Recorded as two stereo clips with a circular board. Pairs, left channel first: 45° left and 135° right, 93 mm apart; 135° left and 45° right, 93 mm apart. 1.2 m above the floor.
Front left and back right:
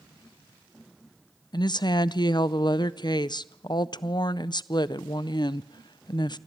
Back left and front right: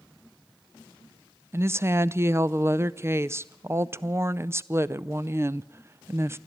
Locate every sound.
1.5 s a woman speaking: 15° left, 0.5 m